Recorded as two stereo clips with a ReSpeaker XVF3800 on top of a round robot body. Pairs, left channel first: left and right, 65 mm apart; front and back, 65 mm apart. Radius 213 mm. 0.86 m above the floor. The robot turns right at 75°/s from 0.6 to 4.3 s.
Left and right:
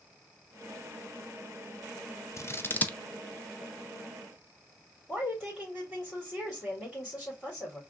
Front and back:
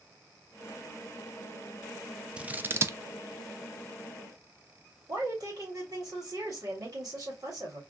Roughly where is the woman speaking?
Behind.